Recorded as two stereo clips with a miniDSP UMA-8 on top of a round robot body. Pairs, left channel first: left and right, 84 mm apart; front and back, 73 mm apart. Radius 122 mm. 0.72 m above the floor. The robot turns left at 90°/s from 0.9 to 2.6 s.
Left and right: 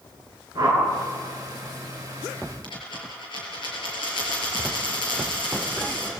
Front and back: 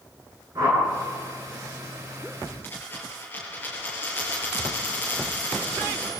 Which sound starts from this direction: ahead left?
A dropped coin, at 2.6 s.